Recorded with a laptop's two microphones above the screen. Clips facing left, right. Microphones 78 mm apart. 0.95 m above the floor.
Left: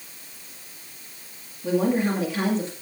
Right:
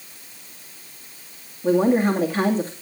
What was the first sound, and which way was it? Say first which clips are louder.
A woman speaking: right 4 dB; 40° right (ahead or behind).